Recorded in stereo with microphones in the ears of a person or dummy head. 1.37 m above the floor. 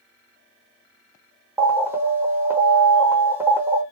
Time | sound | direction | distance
1.6 | an alarm | 10° right (ahead or behind) | 1.0 m